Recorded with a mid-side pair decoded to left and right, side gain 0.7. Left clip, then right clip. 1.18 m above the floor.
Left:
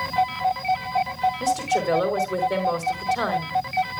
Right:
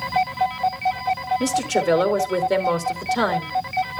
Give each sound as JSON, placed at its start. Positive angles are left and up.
{"t": 1.4, "sound": "a woman speaking", "azimuth_deg": -40, "distance_m": 2.5}